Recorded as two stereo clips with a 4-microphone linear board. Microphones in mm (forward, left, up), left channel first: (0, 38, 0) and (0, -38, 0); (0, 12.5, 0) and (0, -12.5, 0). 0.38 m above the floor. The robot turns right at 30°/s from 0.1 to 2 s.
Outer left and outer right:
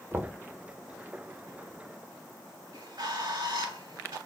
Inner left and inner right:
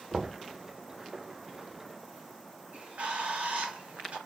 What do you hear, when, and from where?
0.1 s knocking: 25° right (ahead or behind), 0.5 m; by 0.4 s 20° right (ahead or behind), 0.5 m
2.7 s a bird: 80° right, 2.5 m